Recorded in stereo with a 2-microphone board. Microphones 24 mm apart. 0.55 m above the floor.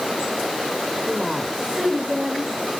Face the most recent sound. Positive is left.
turn(degrees=-45)  # may be behind; listen again after turning